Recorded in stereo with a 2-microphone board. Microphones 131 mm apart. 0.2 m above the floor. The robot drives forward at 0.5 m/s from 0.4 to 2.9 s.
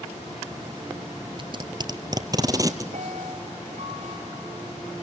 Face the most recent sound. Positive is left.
turn(degrees=-70)  # may be behind; listen again after turning